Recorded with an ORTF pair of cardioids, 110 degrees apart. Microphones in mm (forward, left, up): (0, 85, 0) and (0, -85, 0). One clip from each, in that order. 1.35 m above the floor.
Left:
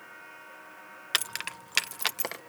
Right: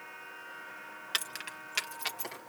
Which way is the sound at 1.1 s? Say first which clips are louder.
Left 5 dB; 30° left.